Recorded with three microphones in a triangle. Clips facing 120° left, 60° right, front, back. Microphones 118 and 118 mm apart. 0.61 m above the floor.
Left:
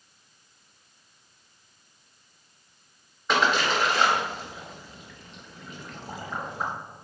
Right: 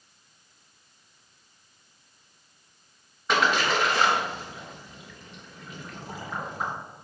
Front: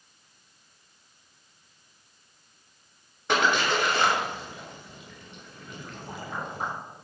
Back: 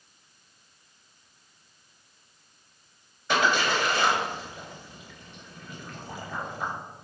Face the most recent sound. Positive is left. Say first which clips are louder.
# even, even
turn(degrees=30)